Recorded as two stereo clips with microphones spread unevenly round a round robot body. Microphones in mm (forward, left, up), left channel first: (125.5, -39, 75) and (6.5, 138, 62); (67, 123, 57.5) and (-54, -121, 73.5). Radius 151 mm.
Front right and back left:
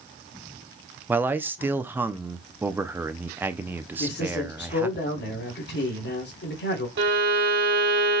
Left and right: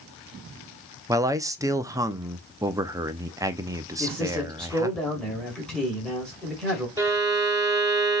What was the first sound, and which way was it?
A man speaking, straight behind.